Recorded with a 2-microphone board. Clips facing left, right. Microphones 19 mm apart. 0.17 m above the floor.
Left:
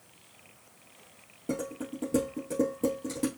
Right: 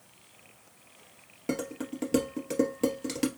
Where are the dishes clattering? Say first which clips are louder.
Right 1 dB; 70° right (ahead or behind), 2 m.